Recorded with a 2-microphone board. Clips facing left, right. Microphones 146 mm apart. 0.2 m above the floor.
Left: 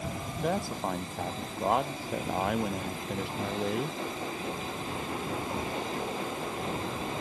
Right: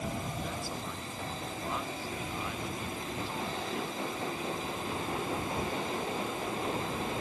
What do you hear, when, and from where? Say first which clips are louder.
0.4 s a man speaking: left 7 dB; 60° left (ahead or behind)